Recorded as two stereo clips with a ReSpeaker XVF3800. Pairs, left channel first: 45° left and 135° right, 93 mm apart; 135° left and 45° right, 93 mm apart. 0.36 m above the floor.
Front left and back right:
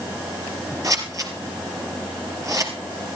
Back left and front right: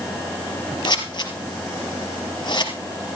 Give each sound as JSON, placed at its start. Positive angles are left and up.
{"t": 0.8, "sound": "scissors", "azimuth_deg": 175, "distance_m": 3.0}